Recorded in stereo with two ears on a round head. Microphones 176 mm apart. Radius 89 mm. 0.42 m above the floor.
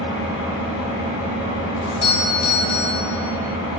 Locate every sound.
0.0 s an engine running: 75° left (ahead or behind), 3 m
1.8 s a doorbell: 25° left (ahead or behind), 1.3 m